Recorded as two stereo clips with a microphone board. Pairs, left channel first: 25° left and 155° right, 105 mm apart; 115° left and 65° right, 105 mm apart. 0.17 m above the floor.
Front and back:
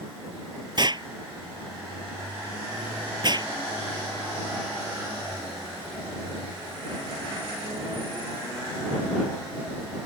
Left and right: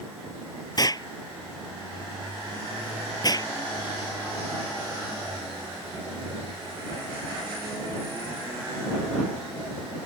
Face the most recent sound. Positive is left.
turn(degrees=160)